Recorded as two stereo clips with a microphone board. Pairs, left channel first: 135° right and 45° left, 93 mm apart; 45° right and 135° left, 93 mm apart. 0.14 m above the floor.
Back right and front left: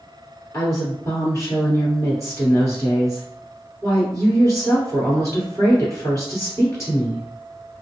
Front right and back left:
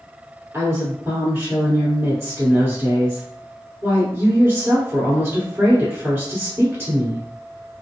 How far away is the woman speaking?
About 1.7 m.